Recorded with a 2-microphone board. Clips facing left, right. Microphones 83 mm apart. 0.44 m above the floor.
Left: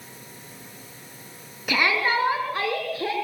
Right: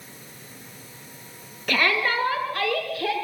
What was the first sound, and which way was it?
A shout, 10° left (ahead or behind).